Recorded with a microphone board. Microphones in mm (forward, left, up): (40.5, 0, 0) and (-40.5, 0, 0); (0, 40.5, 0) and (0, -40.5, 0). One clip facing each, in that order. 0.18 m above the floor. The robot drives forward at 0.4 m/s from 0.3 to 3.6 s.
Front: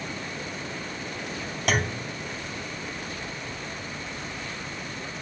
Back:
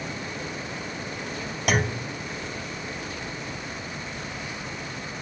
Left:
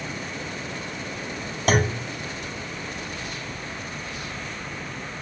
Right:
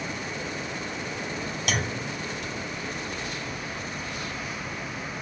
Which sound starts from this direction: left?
A clunk, at 1.7 s.